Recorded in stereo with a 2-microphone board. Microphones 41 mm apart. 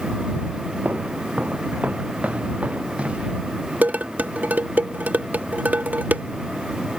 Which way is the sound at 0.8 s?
45° right (ahead or behind).